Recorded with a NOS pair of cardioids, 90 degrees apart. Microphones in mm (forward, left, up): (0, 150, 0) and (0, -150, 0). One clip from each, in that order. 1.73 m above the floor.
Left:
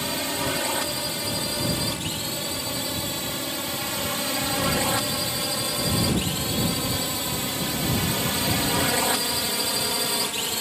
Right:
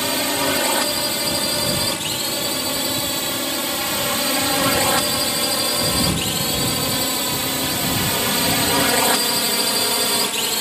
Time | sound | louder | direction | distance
0.0 | a drone | right 6 dB | 55° right | ?